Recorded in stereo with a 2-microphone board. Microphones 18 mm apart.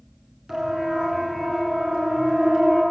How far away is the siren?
About 5 m.